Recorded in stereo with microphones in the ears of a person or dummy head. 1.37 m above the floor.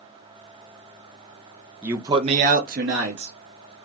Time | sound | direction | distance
1.8 | a man speaking | 10° right (ahead or behind) | 0.6 m